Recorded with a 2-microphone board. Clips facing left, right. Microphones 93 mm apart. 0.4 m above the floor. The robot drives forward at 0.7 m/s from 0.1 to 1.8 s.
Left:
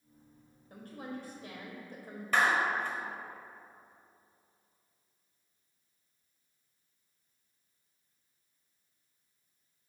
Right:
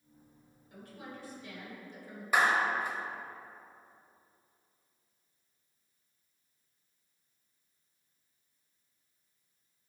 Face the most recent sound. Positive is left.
turn(degrees=-15)  # may be behind; listen again after turning